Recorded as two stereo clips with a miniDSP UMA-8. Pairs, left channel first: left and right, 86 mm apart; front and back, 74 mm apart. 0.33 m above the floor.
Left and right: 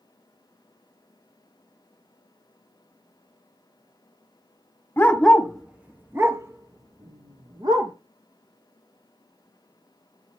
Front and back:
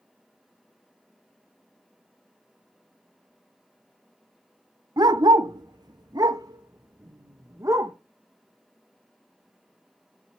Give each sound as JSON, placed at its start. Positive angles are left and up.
{"t": 5.0, "sound": "a dog barking", "azimuth_deg": 160, "distance_m": 1.0}